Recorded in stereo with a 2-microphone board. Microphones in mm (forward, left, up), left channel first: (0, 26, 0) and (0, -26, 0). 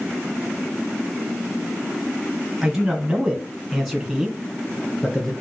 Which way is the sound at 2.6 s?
5° right (ahead or behind).